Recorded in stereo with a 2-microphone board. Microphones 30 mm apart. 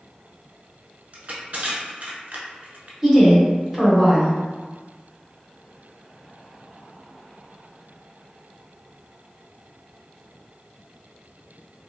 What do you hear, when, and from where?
1.1 s crushing: 60° right (ahead or behind), 0.7 m
3.0 s a woman speaking: 20° right (ahead or behind), 0.9 m